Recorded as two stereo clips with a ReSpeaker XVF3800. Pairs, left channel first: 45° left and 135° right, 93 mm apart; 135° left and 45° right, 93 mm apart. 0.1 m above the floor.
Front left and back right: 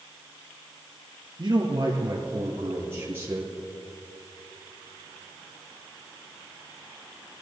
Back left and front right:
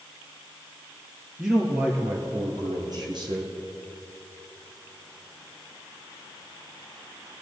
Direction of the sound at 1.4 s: 120° right.